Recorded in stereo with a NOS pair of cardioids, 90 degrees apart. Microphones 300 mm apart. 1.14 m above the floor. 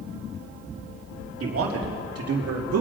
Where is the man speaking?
45° right, 3 m; by 2.8 s 60° right, 2.5 m.